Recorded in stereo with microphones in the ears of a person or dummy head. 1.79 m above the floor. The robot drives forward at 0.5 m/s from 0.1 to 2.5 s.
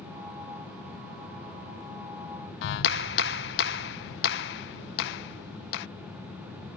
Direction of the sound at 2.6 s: 70° left (ahead or behind).